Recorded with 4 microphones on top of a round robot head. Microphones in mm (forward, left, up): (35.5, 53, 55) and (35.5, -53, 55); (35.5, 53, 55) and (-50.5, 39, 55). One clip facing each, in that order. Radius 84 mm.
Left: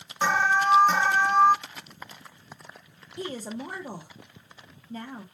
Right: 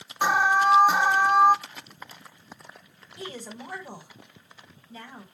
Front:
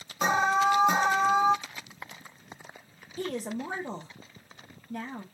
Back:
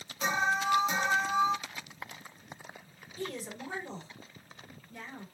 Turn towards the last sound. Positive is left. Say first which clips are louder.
# left 5 dB, front 6 dB
turn(degrees=40)